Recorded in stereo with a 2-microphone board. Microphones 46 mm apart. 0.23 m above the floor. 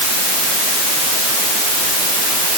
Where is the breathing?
I don't hear breathing.